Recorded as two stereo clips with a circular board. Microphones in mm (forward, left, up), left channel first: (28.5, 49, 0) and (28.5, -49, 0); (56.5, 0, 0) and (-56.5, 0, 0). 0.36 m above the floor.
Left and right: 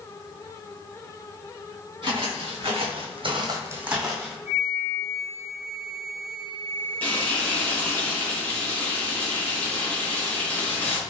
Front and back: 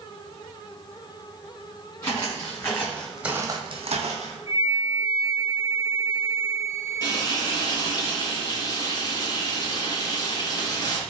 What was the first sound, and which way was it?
Footsteps, 55° right.